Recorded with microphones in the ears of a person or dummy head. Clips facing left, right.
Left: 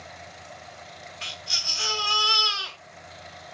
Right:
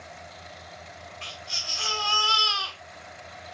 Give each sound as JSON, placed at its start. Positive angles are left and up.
{"t": 1.2, "sound": "a baby crying", "side_deg": 15, "distance_m": 0.5}